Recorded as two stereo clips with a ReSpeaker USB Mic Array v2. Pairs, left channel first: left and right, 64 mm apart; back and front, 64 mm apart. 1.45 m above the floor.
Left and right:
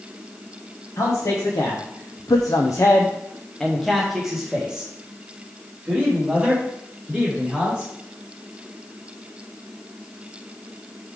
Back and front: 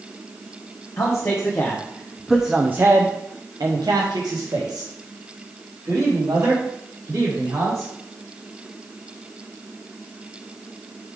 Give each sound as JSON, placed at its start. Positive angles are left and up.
{"t": 1.0, "sound": "a man speaking", "azimuth_deg": 130, "distance_m": 1.5}